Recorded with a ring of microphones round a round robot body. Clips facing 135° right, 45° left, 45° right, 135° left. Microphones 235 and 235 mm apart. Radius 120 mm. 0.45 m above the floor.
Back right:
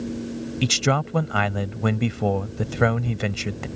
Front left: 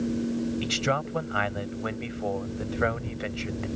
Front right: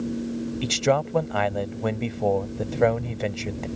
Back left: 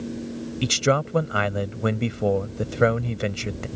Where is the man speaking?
155° right.